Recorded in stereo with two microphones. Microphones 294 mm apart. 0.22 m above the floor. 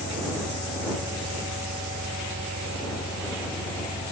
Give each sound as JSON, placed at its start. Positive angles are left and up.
{"t": 0.0, "sound": "an engine running", "side_deg": -60}